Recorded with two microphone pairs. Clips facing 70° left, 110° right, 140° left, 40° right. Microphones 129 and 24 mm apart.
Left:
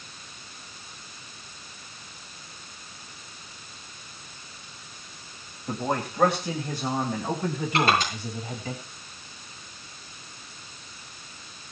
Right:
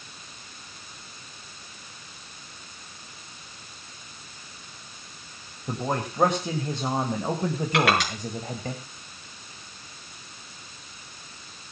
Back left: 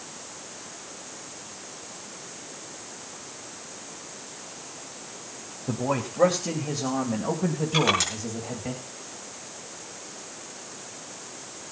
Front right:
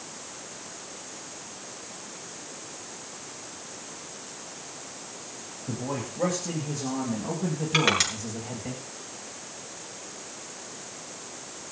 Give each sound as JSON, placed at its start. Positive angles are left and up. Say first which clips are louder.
{"t": 5.7, "sound": "a man speaking", "louder": "even, back left 5 dB", "azimuth_deg": 170, "distance_m": 2.5}
{"t": 7.7, "sound": "crushing", "louder": "even, front right 1 dB", "azimuth_deg": -115, "distance_m": 7.0}